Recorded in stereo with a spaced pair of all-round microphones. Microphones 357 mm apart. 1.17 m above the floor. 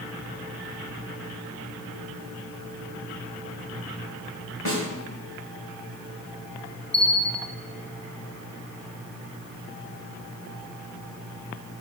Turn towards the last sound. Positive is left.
turn(degrees=30)  # may be behind; listen again after turning